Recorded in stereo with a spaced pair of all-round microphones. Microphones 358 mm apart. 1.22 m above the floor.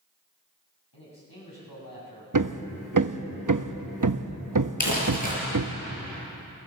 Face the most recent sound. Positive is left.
turn(degrees=55)  # may be behind; listen again after turning